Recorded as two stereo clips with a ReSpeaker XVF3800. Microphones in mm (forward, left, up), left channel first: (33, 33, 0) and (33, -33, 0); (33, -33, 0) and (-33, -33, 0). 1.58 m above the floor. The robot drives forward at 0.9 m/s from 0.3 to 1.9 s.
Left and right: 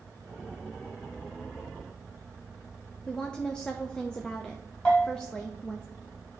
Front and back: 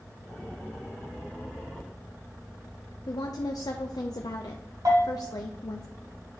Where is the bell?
165° left, 2.5 m.